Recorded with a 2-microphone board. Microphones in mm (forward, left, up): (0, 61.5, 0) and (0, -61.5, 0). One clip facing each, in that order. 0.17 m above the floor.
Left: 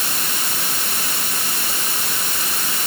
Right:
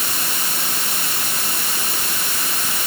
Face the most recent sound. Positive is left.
No sound to turn to.